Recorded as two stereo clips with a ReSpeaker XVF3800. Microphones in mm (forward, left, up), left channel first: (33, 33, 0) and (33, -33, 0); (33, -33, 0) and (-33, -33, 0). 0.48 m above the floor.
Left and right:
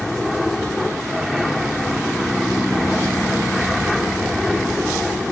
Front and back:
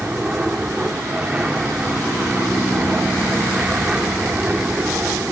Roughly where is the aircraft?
Behind.